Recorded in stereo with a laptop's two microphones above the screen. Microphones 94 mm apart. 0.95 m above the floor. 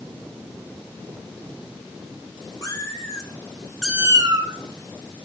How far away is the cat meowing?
About 2 m.